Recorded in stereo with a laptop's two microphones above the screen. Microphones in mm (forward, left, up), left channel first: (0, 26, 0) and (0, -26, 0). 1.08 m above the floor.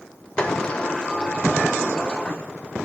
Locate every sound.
0.4 s a sliding door: 20° left (ahead or behind), 1.1 m